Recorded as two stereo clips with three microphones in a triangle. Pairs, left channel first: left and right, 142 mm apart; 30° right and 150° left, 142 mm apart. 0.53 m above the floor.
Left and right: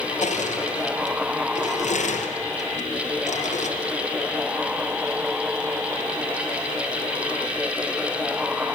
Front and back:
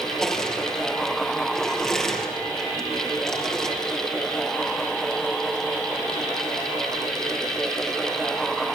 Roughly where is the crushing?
Ahead left.